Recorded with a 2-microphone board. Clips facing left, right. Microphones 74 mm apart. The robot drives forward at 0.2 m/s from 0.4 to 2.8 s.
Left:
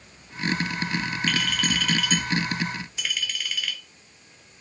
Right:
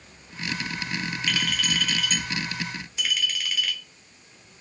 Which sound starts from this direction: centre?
A clink, at 1.3 s.